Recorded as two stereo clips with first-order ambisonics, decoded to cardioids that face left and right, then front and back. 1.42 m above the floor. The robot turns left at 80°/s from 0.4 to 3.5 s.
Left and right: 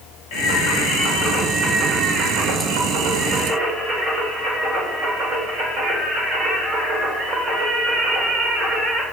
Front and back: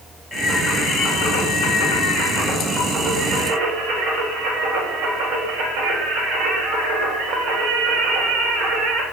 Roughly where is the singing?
Left.